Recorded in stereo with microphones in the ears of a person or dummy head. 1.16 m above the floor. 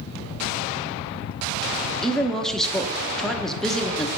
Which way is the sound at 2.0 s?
Centre (ahead or behind).